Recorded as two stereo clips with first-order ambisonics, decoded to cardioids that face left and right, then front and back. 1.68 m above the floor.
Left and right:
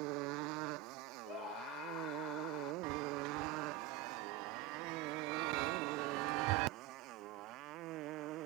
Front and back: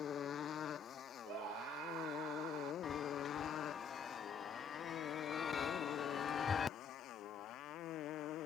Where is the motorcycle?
65° right; by 8.5 s 50° right.